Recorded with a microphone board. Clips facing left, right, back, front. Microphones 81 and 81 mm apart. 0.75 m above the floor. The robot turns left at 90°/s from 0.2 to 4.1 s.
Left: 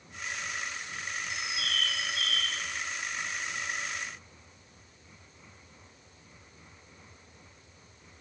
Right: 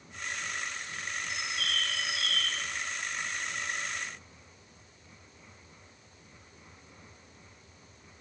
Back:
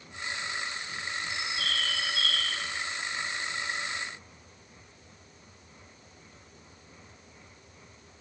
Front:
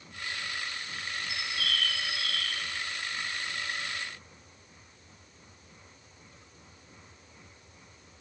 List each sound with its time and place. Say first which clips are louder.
1.3 s a bird: even, front 1 dB; 85° right, 1.4 m; by 2.5 s 165° left, 1.4 m